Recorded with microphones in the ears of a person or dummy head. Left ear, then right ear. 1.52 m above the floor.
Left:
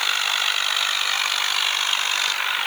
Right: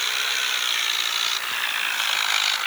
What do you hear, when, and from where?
Only background noise.